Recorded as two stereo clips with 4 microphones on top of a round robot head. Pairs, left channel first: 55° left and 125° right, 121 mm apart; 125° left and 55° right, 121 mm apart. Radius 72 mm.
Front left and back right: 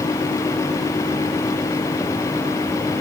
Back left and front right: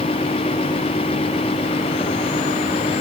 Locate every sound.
Only background noise.